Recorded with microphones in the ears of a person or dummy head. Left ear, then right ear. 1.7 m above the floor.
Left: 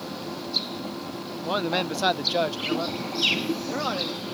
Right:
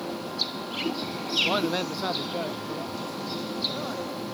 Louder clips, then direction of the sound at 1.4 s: Even; 15° right (ahead or behind).